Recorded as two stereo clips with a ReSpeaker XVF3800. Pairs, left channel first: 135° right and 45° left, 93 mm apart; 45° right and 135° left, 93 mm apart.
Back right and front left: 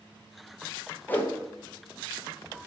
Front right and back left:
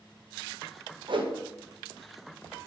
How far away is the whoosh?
About 0.5 m.